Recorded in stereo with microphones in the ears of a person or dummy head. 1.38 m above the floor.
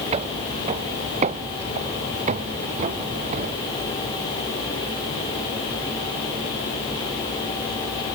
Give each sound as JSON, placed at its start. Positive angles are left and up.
{"t": 0.1, "sound": "footsteps", "side_deg": -35}